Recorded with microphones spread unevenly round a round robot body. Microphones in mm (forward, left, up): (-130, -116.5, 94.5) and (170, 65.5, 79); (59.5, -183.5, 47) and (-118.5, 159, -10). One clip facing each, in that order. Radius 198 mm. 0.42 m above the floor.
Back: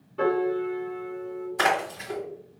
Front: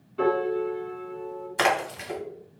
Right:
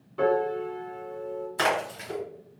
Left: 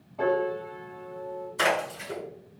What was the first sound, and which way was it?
A piano, 55° right.